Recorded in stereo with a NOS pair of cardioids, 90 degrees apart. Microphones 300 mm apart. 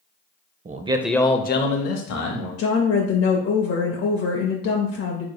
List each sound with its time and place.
0.7 s a man speaking: 30° right, 0.7 m; by 2.5 s 70° left, 1.1 m
2.6 s a woman speaking: 50° left, 0.7 m